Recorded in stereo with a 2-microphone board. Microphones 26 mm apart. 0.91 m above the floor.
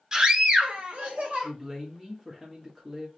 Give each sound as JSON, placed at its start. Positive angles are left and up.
{"t": 0.1, "sound": "a scream", "side_deg": -25, "distance_m": 0.8}
{"t": 1.4, "sound": "a man speaking", "side_deg": -10, "distance_m": 1.3}